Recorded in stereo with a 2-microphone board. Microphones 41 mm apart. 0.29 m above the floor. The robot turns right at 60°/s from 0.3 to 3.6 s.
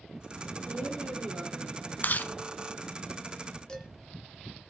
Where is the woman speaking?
95° right, 9 m; by 2.0 s 15° right, 9 m.